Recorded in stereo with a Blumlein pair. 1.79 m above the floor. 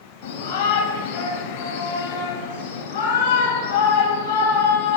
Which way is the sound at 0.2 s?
50° left.